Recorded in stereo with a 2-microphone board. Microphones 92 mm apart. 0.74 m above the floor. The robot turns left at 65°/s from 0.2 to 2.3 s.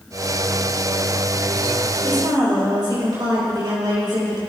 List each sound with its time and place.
2.0 s a woman speaking: 70° right (ahead or behind), 4 m; by 4.4 s 55° right (ahead or behind), 4 m